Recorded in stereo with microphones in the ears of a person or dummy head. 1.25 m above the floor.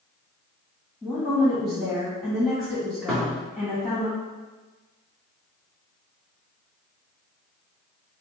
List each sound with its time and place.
1.0 s a woman speaking: centre (ahead or behind), 1.1 m
3.1 s a thud: 5° left (ahead or behind), 1.2 m